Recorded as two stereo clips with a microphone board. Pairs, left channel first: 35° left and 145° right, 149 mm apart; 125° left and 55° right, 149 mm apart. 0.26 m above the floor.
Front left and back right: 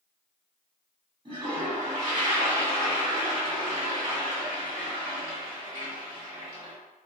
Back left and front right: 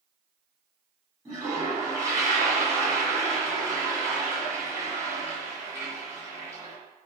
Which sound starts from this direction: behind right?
A toilet flushing, at 1.2 s.